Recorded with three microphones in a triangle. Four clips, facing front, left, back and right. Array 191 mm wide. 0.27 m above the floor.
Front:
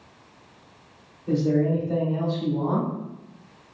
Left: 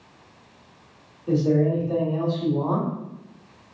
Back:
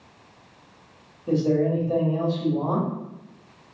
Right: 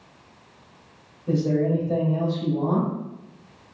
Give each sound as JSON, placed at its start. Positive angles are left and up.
{"t": 1.3, "sound": "a man speaking", "azimuth_deg": 165, "distance_m": 1.0}